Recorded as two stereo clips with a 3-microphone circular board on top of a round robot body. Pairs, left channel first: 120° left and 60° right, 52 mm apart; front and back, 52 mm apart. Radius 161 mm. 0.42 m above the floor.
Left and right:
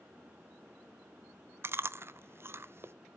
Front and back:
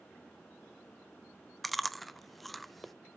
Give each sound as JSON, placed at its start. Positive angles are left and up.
{"t": 1.6, "sound": "chewing", "azimuth_deg": -90, "distance_m": 0.7}